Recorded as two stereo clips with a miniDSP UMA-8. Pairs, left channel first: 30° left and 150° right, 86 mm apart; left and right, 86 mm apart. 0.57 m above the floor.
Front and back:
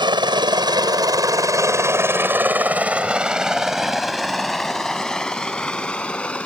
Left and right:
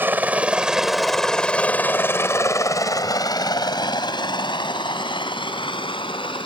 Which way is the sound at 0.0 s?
155° right.